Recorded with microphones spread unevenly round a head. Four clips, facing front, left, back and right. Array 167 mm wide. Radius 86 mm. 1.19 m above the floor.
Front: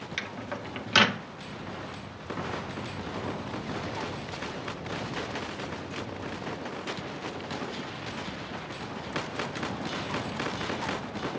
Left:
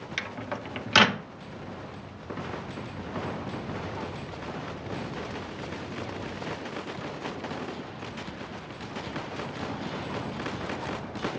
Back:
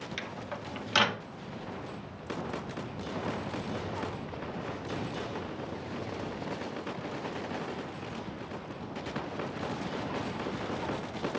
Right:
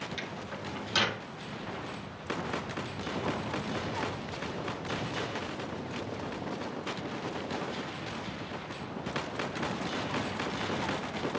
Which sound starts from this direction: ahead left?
A microwave, at 0.2 s.